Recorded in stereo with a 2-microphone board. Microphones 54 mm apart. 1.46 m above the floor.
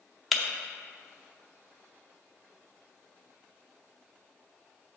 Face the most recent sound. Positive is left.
turn(degrees=0)  # may be behind; listen again after turning